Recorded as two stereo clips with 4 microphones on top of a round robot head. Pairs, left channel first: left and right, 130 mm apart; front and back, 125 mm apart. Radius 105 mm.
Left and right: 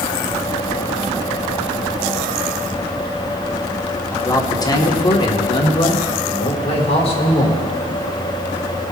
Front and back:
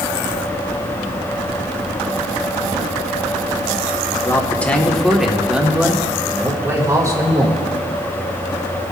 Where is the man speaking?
45° left, 1.4 m; by 7.6 s 130° left, 2.5 m.